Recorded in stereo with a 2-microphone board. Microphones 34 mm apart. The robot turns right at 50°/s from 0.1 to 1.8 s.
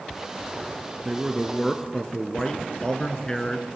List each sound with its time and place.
1.1 s a man speaking: 15° right, 1.8 m; by 3.7 s 25° left, 1.8 m